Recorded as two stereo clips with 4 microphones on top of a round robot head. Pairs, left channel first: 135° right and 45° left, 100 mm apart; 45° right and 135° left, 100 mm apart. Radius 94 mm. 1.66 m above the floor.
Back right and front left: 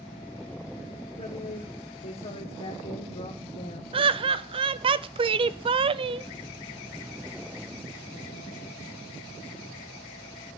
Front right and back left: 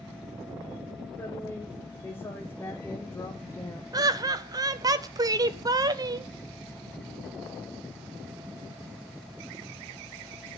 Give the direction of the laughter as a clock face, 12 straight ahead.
9 o'clock.